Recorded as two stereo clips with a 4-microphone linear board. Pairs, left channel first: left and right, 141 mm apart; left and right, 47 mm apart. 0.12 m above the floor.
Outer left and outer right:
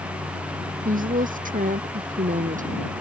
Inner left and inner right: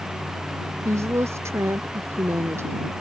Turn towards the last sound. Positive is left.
turn(degrees=-65)  # may be behind; listen again after turning